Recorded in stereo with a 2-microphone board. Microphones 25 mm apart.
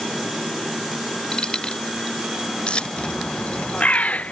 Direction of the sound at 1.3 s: 40° left (ahead or behind).